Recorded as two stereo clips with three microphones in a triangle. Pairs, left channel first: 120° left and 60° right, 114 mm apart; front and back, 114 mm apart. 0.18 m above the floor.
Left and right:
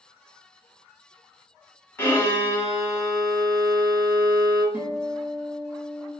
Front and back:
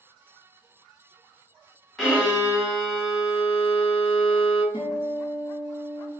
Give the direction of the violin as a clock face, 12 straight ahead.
9 o'clock.